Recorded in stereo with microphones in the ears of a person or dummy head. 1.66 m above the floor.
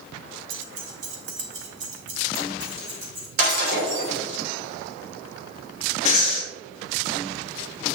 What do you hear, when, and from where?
0.5 s keys jangling: 55° right (ahead or behind), 1.0 m; by 3.3 s 30° right (ahead or behind), 2 m
3.4 s breaking glass: 65° right (ahead or behind), 3.5 m
6.0 s breathing: 45° left (ahead or behind), 0.8 m